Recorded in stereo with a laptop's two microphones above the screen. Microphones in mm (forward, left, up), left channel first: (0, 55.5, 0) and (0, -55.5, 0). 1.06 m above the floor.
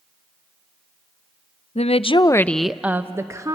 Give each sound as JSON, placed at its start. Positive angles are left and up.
{"t": 1.8, "sound": "a woman speaking", "side_deg": 70, "distance_m": 0.7}